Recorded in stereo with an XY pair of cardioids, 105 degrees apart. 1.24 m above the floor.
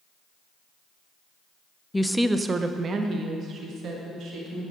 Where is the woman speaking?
10° left, 0.5 m; by 4.7 s 70° right, 2 m.